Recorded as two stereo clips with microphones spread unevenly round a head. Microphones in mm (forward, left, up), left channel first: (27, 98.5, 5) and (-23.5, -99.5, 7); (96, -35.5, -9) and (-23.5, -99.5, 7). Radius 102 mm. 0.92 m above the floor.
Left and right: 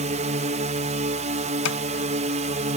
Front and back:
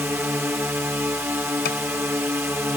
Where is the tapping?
65° left.